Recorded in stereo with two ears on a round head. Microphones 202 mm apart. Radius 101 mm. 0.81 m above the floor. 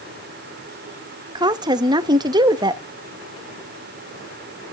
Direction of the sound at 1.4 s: 20° right (ahead or behind).